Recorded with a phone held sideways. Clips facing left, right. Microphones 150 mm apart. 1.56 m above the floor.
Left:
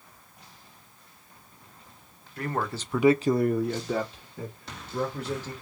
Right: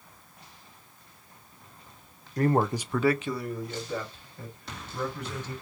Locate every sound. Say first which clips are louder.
2.4 s a man speaking: right 7 dB; 40° right (ahead or behind), 0.8 m; by 5.5 s 85° left, 2.5 m